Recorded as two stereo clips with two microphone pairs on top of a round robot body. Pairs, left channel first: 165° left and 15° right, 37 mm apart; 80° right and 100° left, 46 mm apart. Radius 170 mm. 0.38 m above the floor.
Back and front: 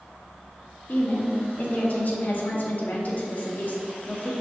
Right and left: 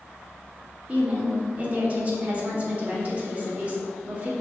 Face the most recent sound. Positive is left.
turn(degrees=160)